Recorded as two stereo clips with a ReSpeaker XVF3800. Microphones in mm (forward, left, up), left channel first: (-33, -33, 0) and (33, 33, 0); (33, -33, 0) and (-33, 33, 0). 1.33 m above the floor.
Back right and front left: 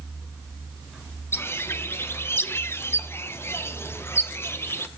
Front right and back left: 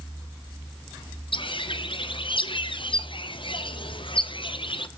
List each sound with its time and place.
1.3 s a bird: 70° right, 0.8 m